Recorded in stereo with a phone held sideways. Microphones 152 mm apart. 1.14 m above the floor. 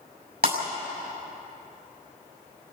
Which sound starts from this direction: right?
Breaking glass, at 0.4 s.